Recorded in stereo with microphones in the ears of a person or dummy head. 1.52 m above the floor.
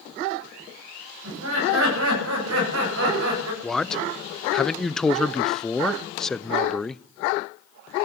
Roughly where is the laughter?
Right.